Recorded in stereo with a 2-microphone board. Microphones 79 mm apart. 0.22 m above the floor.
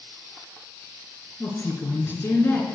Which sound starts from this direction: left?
A woman speaking, at 1.4 s.